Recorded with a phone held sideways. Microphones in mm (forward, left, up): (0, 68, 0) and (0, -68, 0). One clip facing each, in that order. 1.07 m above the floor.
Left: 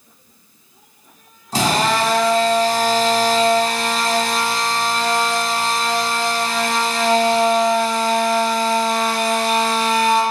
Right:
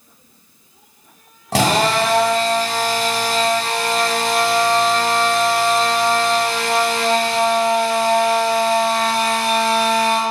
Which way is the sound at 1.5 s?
85° right.